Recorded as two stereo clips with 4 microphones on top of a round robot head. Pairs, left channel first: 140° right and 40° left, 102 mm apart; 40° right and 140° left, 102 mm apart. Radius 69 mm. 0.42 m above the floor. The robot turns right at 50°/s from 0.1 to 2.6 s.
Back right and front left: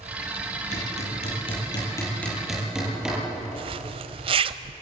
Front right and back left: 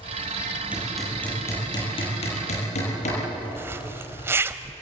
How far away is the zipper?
About 0.9 m.